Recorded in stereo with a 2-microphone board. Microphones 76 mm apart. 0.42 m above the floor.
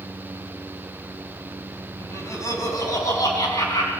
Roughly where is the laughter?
Left.